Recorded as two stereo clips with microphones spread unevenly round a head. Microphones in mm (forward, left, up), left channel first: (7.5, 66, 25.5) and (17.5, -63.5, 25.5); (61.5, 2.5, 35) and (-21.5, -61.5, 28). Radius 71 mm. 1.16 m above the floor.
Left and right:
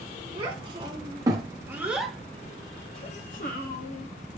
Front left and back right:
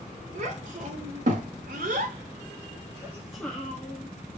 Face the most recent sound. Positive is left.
turn(degrees=100)